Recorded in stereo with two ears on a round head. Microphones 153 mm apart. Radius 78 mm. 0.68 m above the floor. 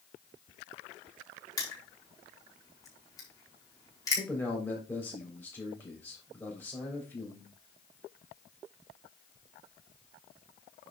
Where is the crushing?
20° left (ahead or behind), 4 m.